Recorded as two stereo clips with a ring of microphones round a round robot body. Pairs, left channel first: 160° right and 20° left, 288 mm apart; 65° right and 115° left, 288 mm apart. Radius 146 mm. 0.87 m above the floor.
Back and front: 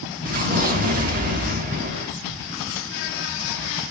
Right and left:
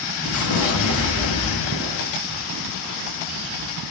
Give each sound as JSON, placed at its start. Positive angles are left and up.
{"t": 0.2, "sound": "an explosion", "azimuth_deg": -35, "distance_m": 1.3}